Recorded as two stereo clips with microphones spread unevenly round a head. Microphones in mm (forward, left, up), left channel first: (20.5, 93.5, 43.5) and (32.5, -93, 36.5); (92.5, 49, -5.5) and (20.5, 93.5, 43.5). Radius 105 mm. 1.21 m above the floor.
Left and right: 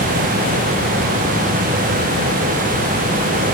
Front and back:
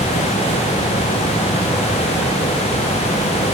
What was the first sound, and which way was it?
Only background noise.